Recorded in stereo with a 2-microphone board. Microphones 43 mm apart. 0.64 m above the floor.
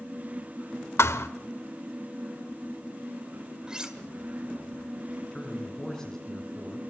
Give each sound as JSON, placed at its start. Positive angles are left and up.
{"t": 1.0, "sound": "a thud", "side_deg": 75, "distance_m": 1.0}
{"t": 3.7, "sound": "cutlery clinking", "side_deg": -20, "distance_m": 1.6}
{"t": 5.3, "sound": "a man speaking", "side_deg": 15, "distance_m": 6.0}